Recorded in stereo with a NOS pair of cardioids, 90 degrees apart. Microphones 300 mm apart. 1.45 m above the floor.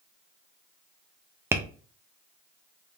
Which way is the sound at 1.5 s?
10° right.